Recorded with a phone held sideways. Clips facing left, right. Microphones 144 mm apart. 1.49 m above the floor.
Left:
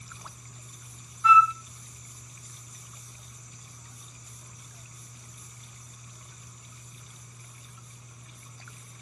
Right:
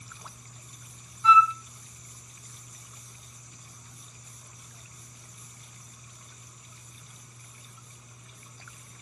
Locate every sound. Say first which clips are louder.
1.2 s a flute: even; 30° right (ahead or behind), 0.6 m